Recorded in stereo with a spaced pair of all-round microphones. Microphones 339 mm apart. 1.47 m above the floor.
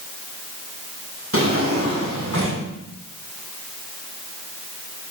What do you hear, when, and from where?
1.3 s a drawer: 40° right (ahead or behind), 8 m